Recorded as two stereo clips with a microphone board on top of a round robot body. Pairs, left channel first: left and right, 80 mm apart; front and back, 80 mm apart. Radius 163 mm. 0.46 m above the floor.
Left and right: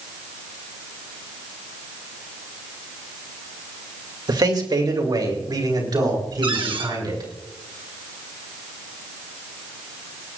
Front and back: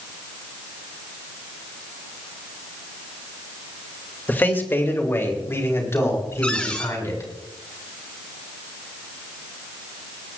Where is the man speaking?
65° right, 2.5 m; by 7.3 s 55° right, 6.5 m.